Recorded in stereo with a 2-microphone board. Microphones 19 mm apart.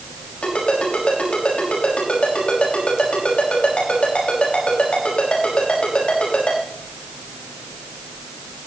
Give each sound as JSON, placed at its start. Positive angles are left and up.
{"t": 0.4, "sound": "a ringtone", "side_deg": 70, "distance_m": 5.5}